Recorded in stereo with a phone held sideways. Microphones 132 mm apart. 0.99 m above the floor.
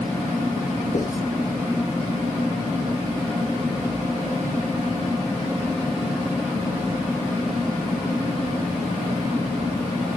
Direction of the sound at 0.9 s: 80° left.